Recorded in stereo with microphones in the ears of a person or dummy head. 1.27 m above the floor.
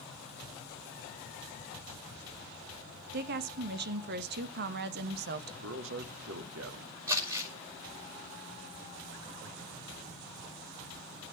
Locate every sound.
3.1 s a woman speaking: 60° right (ahead or behind), 1.5 m
5.6 s a man speaking: 80° right, 2.5 m
7.1 s crumpling: 15° right (ahead or behind), 6 m